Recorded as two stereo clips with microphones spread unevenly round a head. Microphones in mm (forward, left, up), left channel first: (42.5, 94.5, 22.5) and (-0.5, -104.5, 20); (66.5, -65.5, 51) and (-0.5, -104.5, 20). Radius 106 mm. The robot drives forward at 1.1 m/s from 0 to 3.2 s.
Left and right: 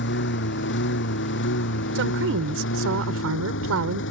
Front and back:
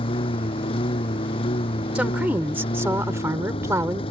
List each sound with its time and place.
0.0 s a lawn mower: 45° left; by 4.1 s 50° left
1.9 s a woman speaking: 75° right; by 4.0 s 95° right